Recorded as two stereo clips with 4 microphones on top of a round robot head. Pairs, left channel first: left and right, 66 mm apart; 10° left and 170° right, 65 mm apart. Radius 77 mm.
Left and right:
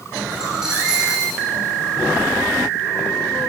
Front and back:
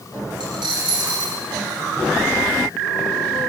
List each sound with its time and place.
0.4 s a dropped coin: 175° right, 9.5 m